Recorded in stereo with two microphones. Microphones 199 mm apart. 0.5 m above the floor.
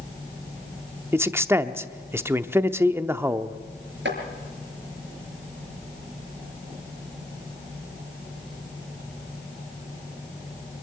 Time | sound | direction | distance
1.1 | a man speaking | 10° right (ahead or behind) | 0.7 m
4.0 | chopping | 65° right (ahead or behind) | 5 m